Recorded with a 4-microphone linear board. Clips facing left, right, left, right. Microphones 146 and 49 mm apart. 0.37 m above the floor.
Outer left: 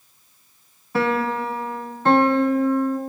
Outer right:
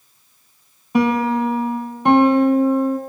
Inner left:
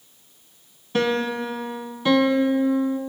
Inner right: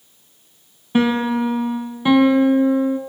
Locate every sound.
0.9 s a piano: 15° right (ahead or behind), 1.4 m